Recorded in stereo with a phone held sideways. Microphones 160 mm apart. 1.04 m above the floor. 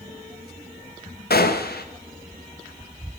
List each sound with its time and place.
1.3 s a gunshot: 75° left (ahead or behind), 0.5 m